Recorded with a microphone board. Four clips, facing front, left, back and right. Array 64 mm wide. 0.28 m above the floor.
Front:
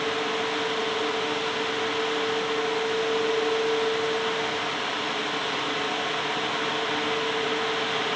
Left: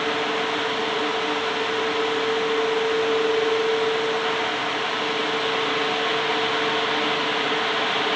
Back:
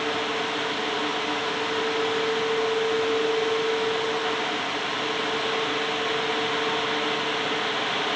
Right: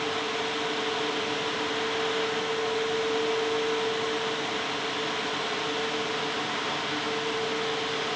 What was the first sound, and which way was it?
Only background noise.